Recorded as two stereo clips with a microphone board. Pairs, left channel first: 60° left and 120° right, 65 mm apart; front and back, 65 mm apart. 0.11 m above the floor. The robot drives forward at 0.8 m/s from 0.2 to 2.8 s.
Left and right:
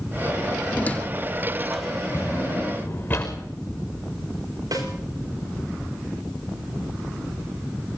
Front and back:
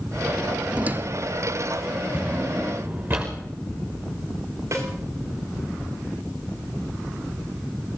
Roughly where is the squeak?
Behind left.